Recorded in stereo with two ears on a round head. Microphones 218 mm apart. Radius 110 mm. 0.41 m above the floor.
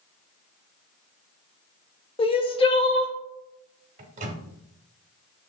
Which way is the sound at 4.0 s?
30° right (ahead or behind).